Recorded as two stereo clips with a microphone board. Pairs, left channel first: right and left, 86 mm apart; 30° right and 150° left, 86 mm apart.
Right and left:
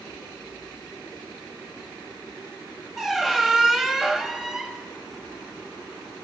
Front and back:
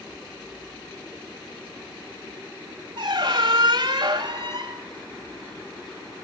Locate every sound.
3.0 s a squeak: 175° left, 1.4 m